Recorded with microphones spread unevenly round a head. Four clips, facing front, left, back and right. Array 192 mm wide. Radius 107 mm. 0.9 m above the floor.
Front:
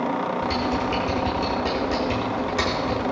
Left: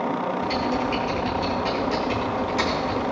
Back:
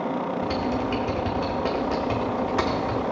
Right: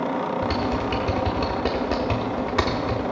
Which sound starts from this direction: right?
Typing on a keyboard, at 0.4 s.